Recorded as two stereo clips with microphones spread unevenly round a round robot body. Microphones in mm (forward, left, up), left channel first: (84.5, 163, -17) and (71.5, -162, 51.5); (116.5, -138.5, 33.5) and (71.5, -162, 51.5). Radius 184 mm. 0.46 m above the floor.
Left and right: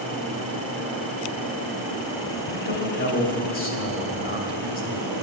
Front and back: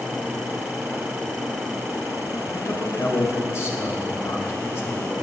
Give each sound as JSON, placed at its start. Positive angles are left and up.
{"t": 2.5, "sound": "a man speaking", "azimuth_deg": 35, "distance_m": 2.5}